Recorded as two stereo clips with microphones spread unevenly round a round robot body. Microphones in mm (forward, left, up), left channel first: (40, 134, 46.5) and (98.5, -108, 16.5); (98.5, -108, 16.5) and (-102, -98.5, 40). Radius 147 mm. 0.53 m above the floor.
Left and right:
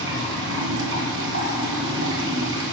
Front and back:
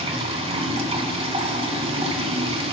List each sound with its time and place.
0.0 s running water: 125° right, 2.5 m